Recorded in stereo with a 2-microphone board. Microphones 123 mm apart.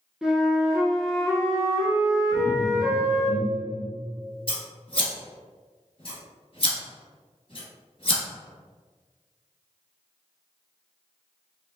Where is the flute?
5° right (ahead or behind), 0.8 m.